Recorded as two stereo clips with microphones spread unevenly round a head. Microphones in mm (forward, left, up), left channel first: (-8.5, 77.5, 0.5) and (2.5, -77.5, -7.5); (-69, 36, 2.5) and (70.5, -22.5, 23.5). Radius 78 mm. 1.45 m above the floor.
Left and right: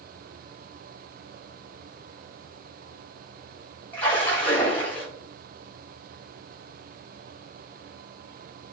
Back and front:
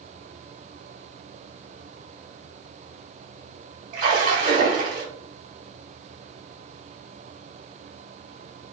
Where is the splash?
15° left, 2.5 m.